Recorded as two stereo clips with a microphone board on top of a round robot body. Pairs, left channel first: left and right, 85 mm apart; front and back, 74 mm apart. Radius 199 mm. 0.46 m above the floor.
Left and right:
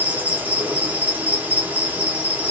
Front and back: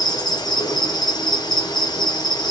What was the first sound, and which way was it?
An insect, 20° right.